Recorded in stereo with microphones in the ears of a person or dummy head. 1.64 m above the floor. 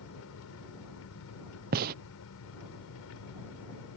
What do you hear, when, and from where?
0.0 s an engine running: 65° left (ahead or behind)
1.7 s a gunshot: 45° right (ahead or behind)